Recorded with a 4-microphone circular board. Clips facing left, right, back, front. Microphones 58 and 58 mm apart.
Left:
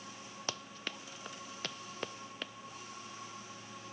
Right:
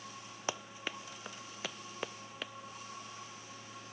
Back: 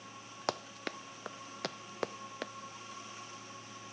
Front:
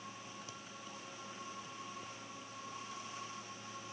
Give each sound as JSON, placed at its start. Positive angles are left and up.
{"t": 0.5, "sound": "running footsteps", "azimuth_deg": -165}